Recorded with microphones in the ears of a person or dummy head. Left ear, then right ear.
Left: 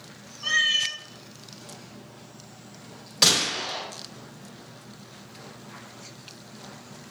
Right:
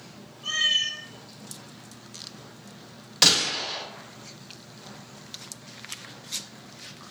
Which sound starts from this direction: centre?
A gunshot, at 3.2 s.